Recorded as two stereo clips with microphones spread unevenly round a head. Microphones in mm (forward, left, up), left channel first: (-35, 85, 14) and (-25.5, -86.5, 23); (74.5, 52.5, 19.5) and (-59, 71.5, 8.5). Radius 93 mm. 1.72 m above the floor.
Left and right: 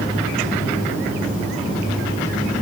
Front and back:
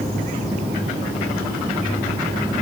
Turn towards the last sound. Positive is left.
No sound to turn to.